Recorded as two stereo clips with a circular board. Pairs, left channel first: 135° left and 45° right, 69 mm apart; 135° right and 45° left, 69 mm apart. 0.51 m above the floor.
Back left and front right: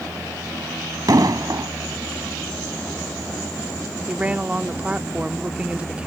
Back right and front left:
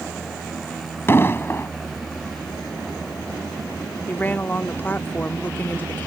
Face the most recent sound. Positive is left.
turn(degrees=-100)